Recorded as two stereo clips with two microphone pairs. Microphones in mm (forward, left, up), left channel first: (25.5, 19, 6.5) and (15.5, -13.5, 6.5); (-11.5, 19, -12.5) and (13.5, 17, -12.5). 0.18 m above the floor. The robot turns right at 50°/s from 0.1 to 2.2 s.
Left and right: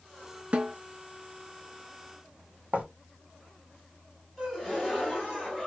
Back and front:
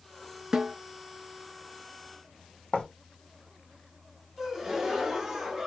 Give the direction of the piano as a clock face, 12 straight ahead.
I don't hear a piano.